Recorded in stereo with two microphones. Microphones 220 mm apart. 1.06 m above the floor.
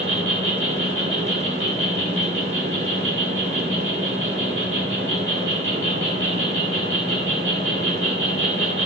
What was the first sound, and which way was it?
An insect, 80° right.